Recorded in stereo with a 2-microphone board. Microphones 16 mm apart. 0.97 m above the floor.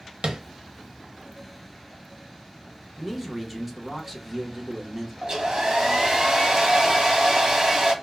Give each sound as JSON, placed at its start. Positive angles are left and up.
{"t": 0.2, "sound": "tapping", "side_deg": -70, "distance_m": 0.6}
{"t": 3.0, "sound": "a man speaking", "side_deg": -10, "distance_m": 0.8}
{"t": 5.2, "sound": "a hair dryer", "side_deg": -40, "distance_m": 0.9}